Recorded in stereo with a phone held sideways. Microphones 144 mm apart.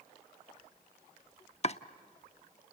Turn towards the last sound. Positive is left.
turn(degrees=45)  # may be behind; listen again after turning